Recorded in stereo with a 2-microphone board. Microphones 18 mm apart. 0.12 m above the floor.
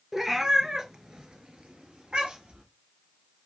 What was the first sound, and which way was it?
A cat meowing, 10° right (ahead or behind).